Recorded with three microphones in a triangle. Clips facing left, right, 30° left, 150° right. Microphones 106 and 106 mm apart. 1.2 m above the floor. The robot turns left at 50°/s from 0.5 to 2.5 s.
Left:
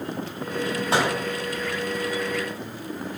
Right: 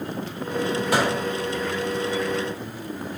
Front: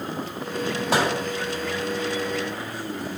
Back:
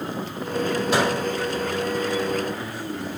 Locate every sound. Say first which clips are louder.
0.9 s a microwave: even, even; 30° left, 1.9 m; by 1.1 s 20° left, 1.9 m